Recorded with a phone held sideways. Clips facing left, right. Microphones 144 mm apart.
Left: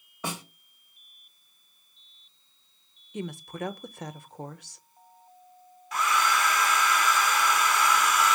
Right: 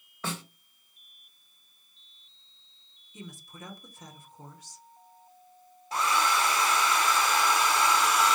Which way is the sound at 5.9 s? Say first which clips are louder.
Left 1 dB; 30° right (ahead or behind).